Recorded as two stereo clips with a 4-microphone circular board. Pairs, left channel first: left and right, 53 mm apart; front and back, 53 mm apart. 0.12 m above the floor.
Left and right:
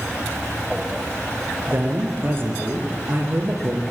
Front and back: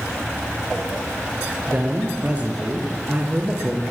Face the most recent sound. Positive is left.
turn(degrees=-125)